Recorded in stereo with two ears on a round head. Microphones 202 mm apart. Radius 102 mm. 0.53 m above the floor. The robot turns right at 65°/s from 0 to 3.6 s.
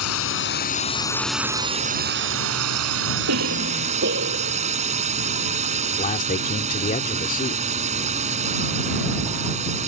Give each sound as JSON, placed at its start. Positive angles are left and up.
{"t": 0.0, "sound": "a drone", "azimuth_deg": 95}
{"t": 3.3, "sound": "a cough", "side_deg": -75}
{"t": 5.9, "sound": "a man speaking", "side_deg": 35}